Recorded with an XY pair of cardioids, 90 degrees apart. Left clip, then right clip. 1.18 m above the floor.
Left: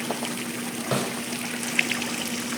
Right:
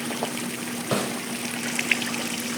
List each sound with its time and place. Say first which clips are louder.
0.9 s a snare drum: right 1 dB; straight ahead, 3 m